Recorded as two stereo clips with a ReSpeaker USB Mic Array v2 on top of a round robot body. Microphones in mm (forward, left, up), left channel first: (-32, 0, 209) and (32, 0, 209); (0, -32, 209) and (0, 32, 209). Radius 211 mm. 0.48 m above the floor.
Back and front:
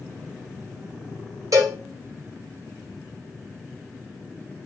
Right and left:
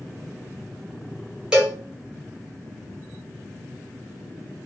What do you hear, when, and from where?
1.5 s a cowbell: 15° left, 1.3 m